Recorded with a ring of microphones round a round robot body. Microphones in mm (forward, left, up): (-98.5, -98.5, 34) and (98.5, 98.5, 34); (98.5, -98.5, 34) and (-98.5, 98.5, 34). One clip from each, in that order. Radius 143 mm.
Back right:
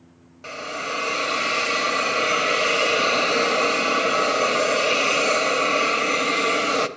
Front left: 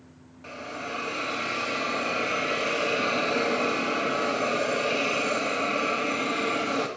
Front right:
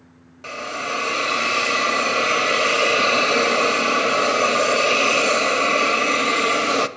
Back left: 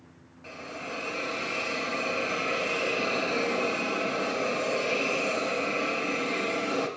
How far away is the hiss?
About 0.6 m.